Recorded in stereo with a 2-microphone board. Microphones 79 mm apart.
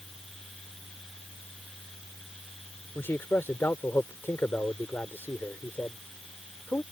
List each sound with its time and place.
3.0 s a man speaking: 30° left (ahead or behind)